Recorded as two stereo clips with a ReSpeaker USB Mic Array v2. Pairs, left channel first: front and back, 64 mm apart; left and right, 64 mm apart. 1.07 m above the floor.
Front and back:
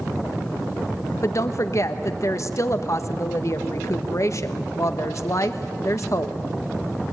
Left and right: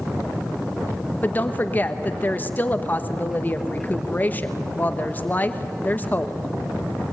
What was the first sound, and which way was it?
A woman speaking, 30° left.